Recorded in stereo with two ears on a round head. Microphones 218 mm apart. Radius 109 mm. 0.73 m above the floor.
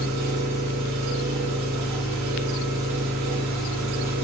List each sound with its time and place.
0.0 s an engine running: 80° right, 1.5 m